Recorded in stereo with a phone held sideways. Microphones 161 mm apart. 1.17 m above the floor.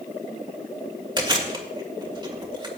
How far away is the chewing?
About 2 m.